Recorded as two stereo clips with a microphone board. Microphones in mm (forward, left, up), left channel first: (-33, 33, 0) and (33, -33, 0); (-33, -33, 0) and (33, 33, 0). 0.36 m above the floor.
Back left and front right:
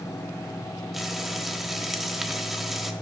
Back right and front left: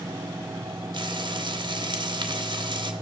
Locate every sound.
0.9 s frying: 45° left, 1.1 m